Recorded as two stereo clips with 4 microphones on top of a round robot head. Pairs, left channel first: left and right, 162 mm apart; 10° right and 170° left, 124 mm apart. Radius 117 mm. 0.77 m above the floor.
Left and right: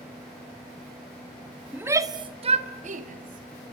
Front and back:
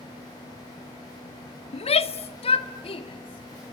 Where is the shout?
10° right, 1.3 m; by 3.7 s 60° right, 3 m.